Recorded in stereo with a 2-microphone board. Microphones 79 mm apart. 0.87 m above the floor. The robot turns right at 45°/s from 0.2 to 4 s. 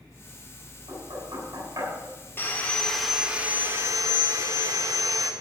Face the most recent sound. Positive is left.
turn(degrees=-135)